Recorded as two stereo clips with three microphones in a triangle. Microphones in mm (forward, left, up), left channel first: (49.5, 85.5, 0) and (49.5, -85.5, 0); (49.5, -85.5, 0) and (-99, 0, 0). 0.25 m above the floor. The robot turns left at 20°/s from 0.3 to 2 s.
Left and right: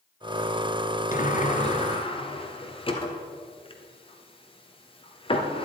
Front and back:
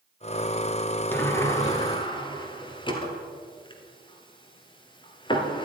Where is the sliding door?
50° left, 1.5 m; by 5.7 s 30° left, 1.5 m.